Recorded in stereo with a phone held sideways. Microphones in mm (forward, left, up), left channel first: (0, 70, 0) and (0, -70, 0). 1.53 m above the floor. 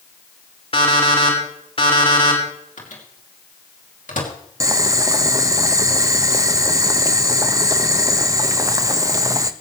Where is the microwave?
65° left (ahead or behind), 2.5 m.